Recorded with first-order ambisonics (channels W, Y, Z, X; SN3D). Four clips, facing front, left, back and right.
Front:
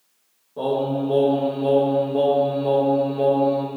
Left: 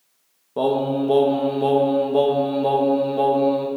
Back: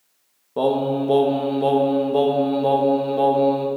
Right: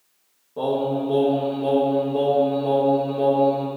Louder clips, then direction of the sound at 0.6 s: Left 2 dB, back 3 dB; 140° left.